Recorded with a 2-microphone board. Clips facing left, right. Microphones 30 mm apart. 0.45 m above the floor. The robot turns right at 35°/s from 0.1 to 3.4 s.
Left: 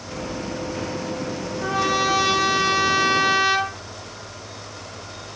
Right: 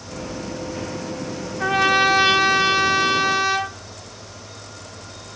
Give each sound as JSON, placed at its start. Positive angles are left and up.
{"t": 1.6, "sound": "a trumpet", "azimuth_deg": -55, "distance_m": 1.1}